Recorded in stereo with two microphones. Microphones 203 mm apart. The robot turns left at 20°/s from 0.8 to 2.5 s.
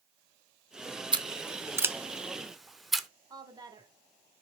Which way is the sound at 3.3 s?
20° right (ahead or behind).